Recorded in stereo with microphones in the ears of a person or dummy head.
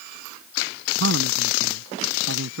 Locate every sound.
1.0 s a man speaking: 65° right (ahead or behind)